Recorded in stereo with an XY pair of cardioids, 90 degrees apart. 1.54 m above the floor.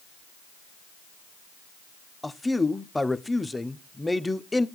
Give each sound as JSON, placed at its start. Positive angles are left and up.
{"t": 2.2, "sound": "a man speaking", "azimuth_deg": 10, "distance_m": 0.6}